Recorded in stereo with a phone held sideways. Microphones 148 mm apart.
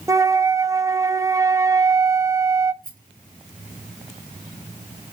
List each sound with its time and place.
0.1 s a flute: 20° right (ahead or behind), 0.6 m
2.8 s a rattle: 70° right (ahead or behind), 2.5 m